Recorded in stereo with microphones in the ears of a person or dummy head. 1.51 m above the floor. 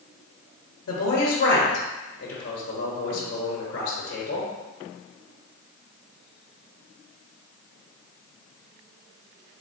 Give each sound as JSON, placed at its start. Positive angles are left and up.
{"t": 0.9, "sound": "a man speaking", "side_deg": 80, "distance_m": 1.1}